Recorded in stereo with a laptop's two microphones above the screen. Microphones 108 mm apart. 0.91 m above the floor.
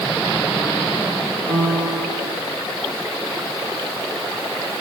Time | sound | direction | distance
1.5 | a piano | 65° right (ahead or behind) | 4 m